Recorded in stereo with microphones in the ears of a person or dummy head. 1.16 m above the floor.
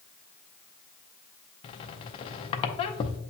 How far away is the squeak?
About 0.6 m.